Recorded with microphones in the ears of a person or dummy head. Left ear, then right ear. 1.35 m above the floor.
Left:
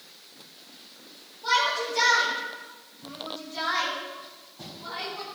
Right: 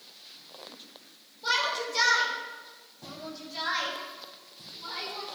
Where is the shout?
75° right (ahead or behind), 7.5 m; by 5.3 s 30° right (ahead or behind), 5 m.